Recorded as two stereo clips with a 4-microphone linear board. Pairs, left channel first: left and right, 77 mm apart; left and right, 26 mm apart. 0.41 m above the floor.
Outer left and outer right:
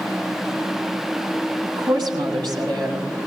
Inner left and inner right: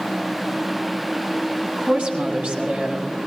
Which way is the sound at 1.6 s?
65° right (ahead or behind).